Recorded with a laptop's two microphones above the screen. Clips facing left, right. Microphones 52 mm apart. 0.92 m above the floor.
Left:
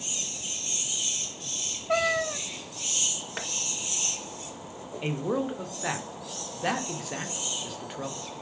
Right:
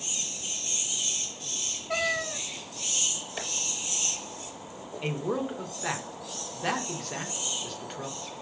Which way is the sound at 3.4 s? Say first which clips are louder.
Left 1 dB; 55° left (ahead or behind).